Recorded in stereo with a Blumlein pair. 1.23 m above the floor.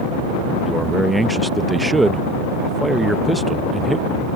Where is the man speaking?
5° right.